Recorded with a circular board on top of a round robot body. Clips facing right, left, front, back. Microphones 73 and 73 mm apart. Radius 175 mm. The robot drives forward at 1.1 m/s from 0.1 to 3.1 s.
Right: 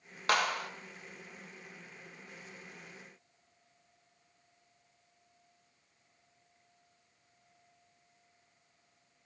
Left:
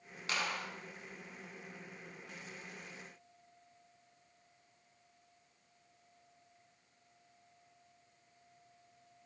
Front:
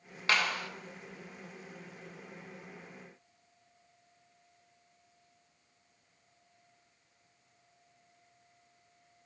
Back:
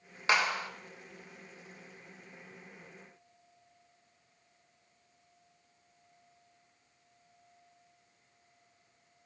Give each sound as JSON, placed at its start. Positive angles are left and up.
{"t": 0.3, "sound": "a clap", "azimuth_deg": -110, "distance_m": 3.0}